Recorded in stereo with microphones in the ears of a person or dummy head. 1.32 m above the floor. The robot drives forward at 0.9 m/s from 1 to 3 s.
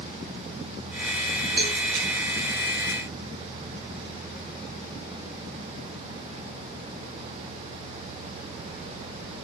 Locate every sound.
1.6 s a cowbell: 30° right (ahead or behind), 7.5 m